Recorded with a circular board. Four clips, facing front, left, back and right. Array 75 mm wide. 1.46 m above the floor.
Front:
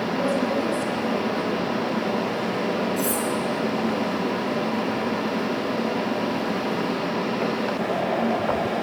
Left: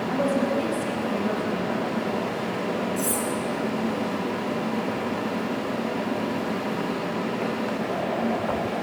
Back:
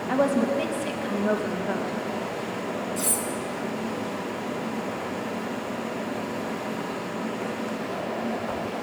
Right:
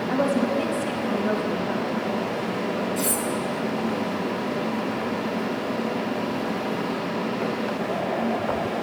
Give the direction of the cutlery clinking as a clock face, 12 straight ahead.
4 o'clock.